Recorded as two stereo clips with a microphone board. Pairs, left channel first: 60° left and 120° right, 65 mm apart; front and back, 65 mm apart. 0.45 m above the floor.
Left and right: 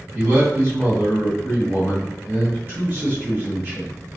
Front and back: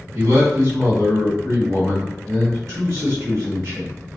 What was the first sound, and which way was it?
A man speaking, 175° right.